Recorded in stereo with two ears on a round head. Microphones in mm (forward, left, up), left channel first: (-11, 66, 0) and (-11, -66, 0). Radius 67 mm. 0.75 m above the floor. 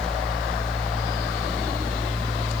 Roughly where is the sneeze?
I don't hear a sneeze.